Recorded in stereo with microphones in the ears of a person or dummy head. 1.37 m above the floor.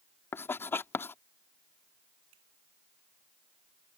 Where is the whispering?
No whispering in this recording.